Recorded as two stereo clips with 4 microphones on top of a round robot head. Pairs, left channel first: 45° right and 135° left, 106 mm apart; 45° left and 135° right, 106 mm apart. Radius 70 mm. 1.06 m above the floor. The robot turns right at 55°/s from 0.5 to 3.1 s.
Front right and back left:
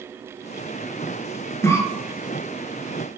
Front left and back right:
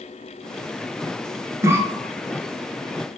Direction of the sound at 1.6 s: 90° right.